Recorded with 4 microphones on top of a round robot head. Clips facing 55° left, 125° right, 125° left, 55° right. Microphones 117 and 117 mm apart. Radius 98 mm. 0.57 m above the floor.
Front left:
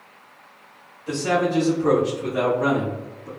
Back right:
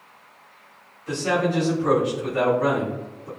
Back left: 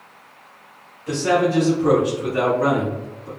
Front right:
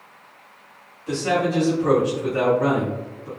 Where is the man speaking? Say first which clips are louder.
Front left 1 dB, back left 3 dB; 110° left, 1.5 m; by 3.3 s 25° left, 1.5 m.